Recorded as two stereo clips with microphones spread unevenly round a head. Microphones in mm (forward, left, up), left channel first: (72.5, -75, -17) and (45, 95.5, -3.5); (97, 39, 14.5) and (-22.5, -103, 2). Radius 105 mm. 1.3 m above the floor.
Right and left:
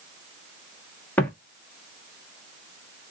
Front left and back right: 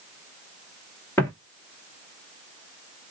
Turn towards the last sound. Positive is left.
turn(degrees=-5)